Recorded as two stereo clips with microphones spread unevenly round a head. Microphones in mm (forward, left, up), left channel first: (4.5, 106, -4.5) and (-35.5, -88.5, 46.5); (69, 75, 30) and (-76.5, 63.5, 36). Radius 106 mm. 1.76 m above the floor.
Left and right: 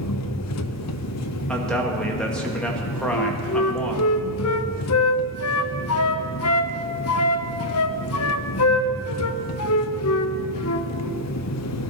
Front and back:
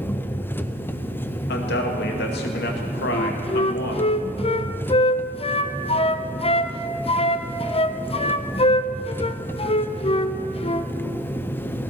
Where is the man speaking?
10° right, 2.0 m.